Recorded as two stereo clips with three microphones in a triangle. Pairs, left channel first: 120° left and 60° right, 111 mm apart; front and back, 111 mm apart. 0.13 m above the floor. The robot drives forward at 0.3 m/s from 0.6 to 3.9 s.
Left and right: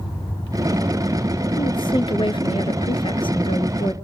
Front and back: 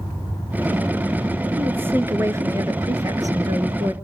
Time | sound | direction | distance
1.6 | a woman speaking | 115° left | 1.5 m